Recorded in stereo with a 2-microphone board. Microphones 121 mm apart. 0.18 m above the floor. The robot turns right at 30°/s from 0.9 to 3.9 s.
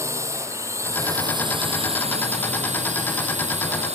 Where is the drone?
155° right; by 4.0 s 65° right.